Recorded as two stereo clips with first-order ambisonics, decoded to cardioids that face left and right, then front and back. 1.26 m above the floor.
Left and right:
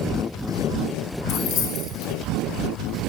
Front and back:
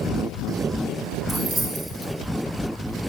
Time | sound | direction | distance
1.3 | keys jangling | 120° left | 0.8 m